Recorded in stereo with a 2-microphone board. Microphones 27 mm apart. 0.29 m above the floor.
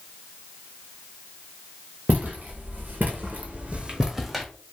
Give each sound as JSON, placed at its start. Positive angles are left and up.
{"t": 2.1, "sound": "footsteps", "side_deg": -75, "distance_m": 1.4}